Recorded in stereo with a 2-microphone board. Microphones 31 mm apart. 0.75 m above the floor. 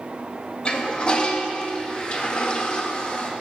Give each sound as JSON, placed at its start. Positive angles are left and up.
{"t": 0.7, "sound": "a toilet flushing", "side_deg": 35, "distance_m": 0.8}